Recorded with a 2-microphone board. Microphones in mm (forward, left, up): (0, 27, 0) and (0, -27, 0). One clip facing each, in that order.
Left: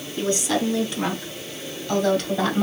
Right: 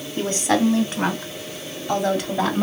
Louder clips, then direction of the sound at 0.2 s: Right 3 dB; 45° right (ahead or behind).